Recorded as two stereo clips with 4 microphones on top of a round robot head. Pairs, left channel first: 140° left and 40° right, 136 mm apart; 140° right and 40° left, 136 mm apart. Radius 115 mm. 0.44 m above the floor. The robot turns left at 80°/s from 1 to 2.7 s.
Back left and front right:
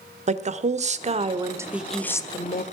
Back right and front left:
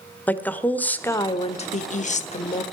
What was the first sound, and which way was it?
A woman speaking, 60° right.